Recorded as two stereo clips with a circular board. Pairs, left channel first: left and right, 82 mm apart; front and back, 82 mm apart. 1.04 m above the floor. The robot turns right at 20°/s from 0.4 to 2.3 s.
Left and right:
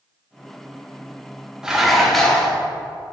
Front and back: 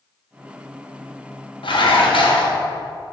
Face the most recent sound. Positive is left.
turn(degrees=5)